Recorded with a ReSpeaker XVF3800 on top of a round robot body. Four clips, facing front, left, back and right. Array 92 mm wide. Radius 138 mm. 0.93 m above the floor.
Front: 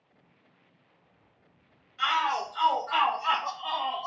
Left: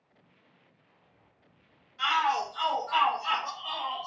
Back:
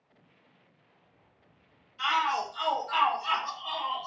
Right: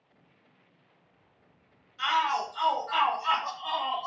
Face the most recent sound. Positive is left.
turn(degrees=-50)